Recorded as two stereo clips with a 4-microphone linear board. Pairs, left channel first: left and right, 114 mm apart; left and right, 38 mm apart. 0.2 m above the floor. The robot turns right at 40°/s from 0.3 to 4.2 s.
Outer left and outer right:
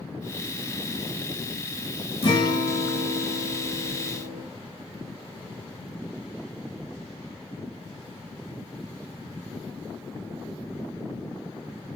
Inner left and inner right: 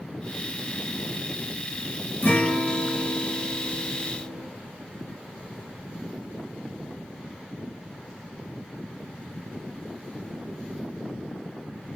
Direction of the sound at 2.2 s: 125° left.